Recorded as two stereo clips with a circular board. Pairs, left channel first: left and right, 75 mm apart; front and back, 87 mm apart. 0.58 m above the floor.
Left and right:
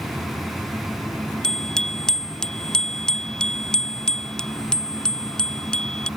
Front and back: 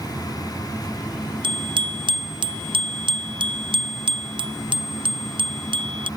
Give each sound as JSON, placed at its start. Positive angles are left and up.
{"t": 1.4, "sound": "a bicycle bell", "azimuth_deg": 175}